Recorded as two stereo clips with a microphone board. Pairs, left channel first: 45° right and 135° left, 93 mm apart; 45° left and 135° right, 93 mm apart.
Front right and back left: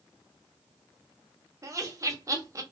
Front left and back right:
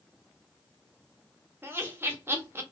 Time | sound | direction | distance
1.6 | laughter | 170° left | 1.0 m